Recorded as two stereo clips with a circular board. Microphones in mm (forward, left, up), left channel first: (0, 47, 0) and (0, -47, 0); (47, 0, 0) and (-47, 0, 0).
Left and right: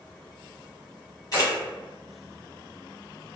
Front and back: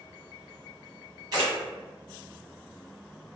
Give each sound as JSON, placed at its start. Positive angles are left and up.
{"t": 1.3, "sound": "a camera shutter", "azimuth_deg": 135, "distance_m": 2.0}